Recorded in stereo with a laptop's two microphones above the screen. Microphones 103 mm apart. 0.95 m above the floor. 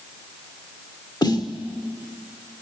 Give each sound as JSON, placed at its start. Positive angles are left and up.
{"t": 1.2, "sound": "a snare drum", "side_deg": 45, "distance_m": 1.1}